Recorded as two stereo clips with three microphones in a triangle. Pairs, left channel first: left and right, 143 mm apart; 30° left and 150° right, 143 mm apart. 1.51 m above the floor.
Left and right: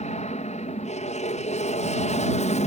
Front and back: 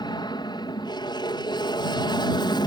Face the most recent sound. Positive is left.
turn(degrees=80)